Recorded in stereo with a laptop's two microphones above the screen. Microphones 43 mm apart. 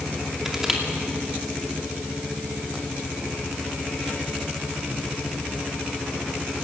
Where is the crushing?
10° right (ahead or behind), 2.5 m.